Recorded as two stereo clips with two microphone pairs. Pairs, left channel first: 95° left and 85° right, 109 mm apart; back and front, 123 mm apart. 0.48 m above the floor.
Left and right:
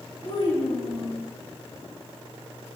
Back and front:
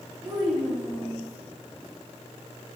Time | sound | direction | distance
0.2 | a child speaking | 60° left | 3 m